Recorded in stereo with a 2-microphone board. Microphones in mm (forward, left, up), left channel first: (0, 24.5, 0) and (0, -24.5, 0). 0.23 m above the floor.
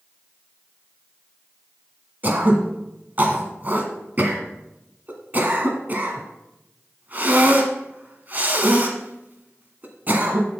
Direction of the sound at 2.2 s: 35° right (ahead or behind).